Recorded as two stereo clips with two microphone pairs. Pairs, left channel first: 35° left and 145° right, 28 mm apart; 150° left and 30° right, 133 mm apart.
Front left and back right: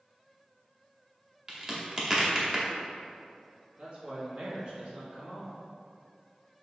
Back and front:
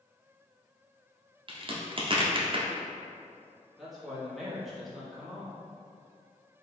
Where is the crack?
80° right, 0.9 m.